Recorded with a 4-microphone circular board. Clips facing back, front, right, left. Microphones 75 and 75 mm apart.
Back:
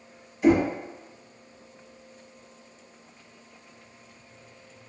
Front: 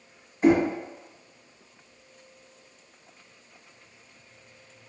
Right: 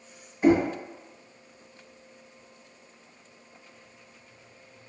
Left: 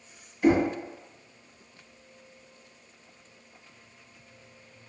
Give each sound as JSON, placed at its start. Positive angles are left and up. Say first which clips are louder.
{"t": 0.4, "sound": "knocking", "louder": "even, right 1 dB", "azimuth_deg": -40, "distance_m": 1.1}